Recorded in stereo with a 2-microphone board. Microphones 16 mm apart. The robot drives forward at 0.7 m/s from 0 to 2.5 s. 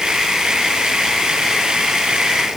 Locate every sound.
Only background noise.